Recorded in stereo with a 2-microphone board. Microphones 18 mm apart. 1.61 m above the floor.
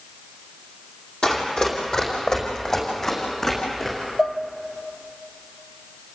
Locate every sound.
1.2 s running footsteps: 45° left (ahead or behind), 5 m; by 4.0 s 20° left (ahead or behind), 7.5 m
4.2 s dishes clattering: 20° left (ahead or behind), 0.7 m